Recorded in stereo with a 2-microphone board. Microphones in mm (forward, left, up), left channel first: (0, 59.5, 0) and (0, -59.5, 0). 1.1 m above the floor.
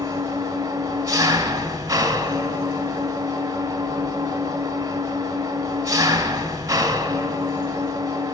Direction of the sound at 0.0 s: 30° right (ahead or behind).